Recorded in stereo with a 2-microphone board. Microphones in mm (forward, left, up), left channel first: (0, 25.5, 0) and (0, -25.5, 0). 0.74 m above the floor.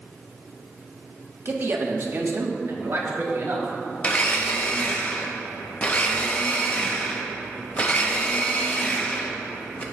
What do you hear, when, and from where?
1.4 s a man speaking: 45° right (ahead or behind), 1.3 m; by 3.7 s 55° right (ahead or behind), 1.8 m
4.0 s a blender: 30° left (ahead or behind), 1.0 m